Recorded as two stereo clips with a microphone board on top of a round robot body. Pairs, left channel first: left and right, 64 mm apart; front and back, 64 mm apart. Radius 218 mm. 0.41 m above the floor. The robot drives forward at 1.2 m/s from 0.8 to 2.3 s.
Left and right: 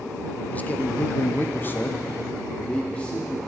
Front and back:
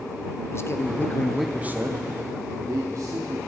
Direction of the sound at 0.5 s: 30° left.